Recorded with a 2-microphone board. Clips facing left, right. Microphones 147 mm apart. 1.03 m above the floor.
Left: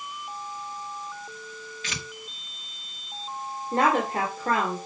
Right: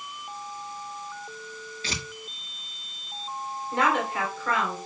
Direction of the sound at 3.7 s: 40° left (ahead or behind).